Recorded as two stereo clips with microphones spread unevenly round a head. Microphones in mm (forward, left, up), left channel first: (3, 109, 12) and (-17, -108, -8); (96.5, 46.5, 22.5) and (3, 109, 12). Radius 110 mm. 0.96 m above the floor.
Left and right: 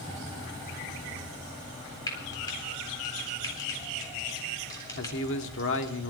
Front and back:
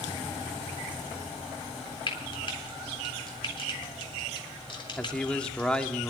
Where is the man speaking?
50° left, 2 m.